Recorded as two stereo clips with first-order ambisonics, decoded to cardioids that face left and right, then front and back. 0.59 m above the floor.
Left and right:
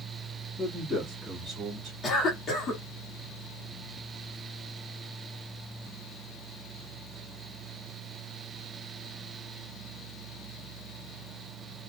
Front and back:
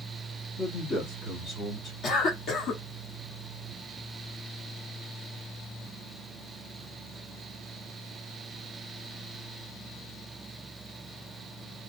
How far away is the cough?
About 1.4 m.